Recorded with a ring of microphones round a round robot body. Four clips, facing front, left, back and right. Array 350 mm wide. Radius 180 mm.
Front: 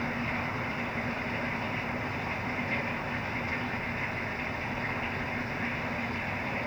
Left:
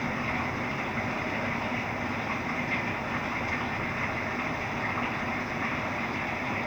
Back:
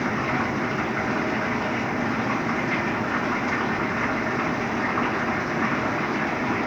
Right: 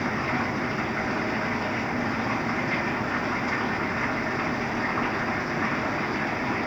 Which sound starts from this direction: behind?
Running water, at 0.0 s.